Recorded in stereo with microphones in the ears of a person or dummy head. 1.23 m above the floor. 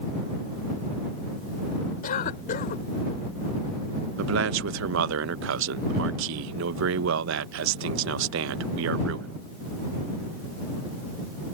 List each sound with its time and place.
2.0 s a cough: 50° left (ahead or behind)
4.2 s a man speaking: 70° right (ahead or behind)